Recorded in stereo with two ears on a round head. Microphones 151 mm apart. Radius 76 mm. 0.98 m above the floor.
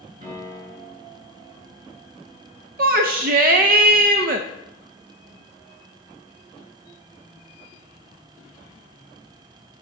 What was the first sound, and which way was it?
A piano, 50° right (ahead or behind).